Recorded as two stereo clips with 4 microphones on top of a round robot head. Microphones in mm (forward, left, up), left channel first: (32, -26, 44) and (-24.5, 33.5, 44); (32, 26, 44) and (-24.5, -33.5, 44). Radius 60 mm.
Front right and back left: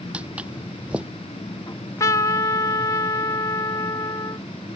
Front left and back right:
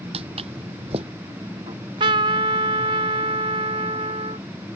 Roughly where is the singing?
No singing in this recording.